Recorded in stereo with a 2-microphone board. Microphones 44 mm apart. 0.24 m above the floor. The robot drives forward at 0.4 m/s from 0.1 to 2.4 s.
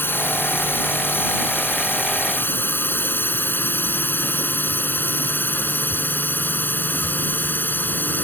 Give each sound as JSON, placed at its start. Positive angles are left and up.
{"t": 0.0, "sound": "a drone", "side_deg": 60}